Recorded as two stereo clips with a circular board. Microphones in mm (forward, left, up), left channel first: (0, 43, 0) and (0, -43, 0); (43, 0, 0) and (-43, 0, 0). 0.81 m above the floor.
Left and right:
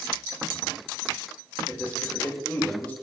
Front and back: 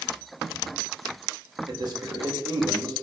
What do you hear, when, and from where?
1.7 s a man speaking: 160° left, 0.9 m